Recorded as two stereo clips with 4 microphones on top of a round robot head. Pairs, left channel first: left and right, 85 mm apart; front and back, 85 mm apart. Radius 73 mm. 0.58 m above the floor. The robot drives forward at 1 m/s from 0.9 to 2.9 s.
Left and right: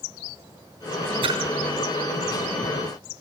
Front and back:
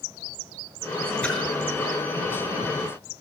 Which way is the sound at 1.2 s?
80° right.